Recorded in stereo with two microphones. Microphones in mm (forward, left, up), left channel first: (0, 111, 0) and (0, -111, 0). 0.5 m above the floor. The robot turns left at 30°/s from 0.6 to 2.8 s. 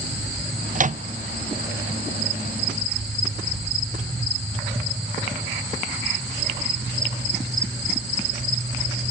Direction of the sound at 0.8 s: 40° right (ahead or behind).